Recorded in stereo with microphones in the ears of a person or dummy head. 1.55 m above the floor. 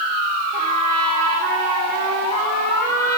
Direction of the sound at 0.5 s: 45° right (ahead or behind).